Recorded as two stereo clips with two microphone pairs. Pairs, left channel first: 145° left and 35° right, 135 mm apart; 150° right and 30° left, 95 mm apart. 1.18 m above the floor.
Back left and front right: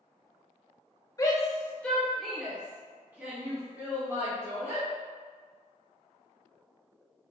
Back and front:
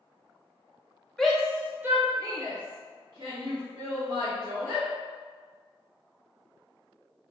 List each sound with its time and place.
1.2 s a shout: 135° left, 0.7 m; by 4.8 s 30° left, 1.8 m